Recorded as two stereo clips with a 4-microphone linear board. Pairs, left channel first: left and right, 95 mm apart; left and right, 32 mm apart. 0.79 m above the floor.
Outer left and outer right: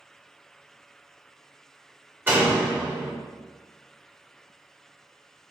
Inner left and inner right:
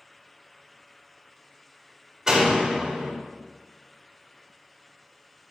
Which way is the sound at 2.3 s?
20° right (ahead or behind).